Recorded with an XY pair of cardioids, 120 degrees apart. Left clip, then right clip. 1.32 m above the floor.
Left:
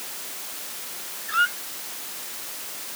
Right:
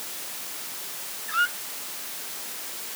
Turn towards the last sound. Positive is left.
turn(degrees=10)